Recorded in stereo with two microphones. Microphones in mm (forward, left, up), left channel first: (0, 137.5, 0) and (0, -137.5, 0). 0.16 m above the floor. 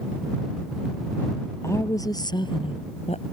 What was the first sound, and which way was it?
A woman speaking, 10° left (ahead or behind).